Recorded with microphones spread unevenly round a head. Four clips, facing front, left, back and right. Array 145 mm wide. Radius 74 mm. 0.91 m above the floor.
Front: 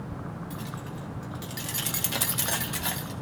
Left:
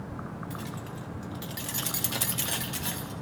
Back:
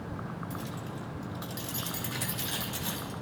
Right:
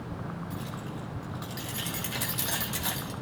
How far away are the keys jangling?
About 2.5 m.